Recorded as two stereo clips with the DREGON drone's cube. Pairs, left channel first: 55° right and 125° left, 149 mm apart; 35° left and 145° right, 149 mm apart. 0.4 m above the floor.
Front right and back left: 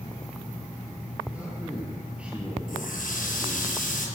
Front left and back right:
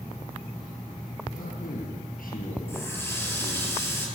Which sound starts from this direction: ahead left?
A man speaking, at 1.3 s.